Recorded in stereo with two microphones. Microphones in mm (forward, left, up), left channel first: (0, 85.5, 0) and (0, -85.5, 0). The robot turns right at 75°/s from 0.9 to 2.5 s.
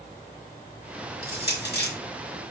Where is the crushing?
65° left (ahead or behind), 4 m; by 1.9 s 60° left (ahead or behind), 4 m.